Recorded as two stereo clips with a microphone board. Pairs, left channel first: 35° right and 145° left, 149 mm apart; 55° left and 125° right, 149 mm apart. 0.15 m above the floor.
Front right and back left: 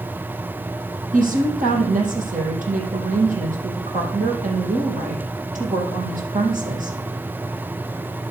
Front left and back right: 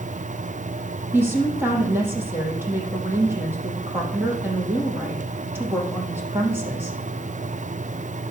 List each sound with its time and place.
1.1 s a woman speaking: 160° left, 4.5 m